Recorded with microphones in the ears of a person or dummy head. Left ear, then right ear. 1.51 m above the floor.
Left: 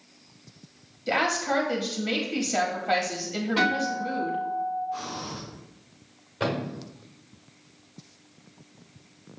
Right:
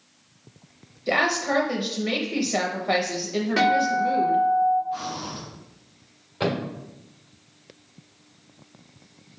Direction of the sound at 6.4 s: 20° right (ahead or behind).